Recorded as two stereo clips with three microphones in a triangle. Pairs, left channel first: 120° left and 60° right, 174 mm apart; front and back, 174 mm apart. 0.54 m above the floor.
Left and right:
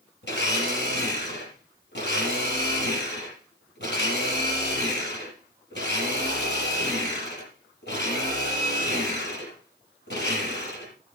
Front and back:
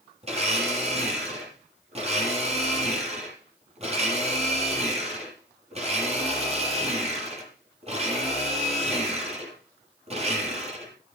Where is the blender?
130° left, 5.5 m.